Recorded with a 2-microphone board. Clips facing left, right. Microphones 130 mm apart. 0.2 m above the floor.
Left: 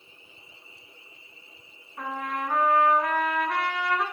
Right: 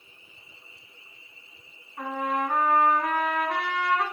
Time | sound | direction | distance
2.0 | a trumpet | 5° right (ahead or behind) | 1.7 m